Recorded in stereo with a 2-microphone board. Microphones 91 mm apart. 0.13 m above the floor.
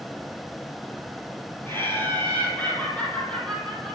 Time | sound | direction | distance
1.7 | laughter | 25° left (ahead or behind) | 4 m